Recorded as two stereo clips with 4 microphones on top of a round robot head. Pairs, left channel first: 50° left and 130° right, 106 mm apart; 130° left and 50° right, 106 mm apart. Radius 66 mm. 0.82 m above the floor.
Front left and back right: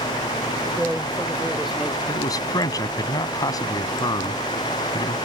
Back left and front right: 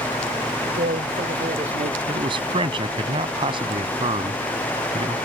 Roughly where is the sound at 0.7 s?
Ahead right.